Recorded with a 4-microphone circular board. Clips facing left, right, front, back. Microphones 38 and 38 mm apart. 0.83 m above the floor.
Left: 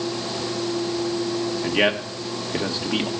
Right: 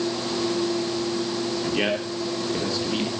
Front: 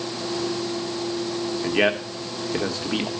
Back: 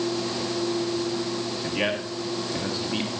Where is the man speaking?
25° left, 2 m.